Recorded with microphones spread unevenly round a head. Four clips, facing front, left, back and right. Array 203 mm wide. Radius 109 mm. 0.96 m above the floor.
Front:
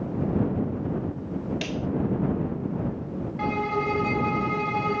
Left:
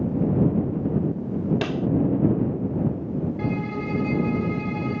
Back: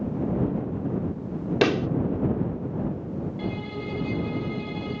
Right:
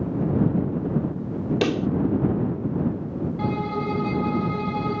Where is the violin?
40° right.